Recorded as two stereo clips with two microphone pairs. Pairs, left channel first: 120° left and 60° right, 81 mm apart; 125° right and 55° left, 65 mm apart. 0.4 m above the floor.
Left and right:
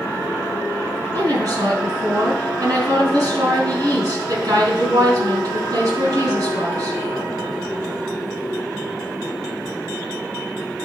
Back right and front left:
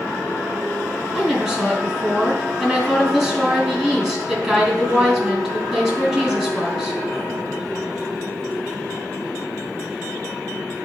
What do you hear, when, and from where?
1.1 s a woman speaking: 25° right, 3 m